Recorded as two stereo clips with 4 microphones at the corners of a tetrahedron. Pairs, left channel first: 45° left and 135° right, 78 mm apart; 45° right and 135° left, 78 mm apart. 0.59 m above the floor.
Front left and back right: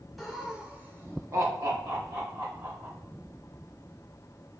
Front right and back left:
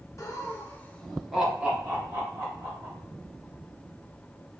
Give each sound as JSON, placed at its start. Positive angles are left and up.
{"t": 0.2, "sound": "laughter", "azimuth_deg": -45, "distance_m": 0.8}